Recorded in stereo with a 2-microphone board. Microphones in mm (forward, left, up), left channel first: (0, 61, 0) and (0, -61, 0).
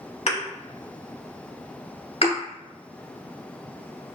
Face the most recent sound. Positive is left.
turn(degrees=60)  # may be behind; listen again after turning